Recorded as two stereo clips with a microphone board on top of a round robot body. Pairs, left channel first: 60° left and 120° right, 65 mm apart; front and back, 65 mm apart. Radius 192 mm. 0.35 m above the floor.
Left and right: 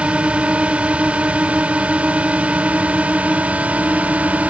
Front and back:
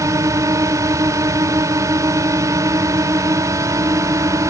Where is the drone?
175° left; by 4.5 s straight behind.